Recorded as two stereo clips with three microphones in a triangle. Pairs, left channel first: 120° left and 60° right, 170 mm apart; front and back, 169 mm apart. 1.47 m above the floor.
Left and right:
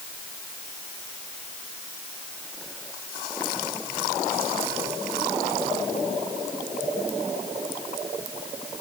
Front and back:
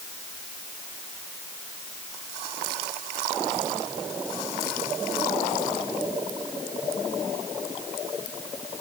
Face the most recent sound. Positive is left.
No sound to turn to.